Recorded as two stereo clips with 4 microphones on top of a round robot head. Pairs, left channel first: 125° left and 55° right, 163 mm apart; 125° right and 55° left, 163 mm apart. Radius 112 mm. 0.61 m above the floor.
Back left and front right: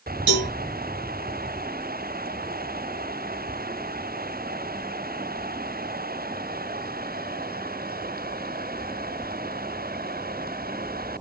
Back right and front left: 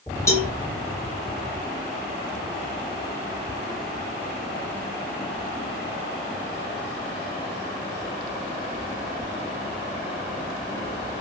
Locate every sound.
0.3 s a cowbell: 50° right, 1.5 m